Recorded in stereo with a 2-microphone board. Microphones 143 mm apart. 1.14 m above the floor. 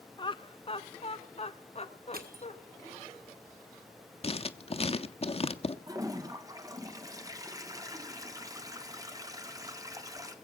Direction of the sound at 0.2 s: 30° left (ahead or behind).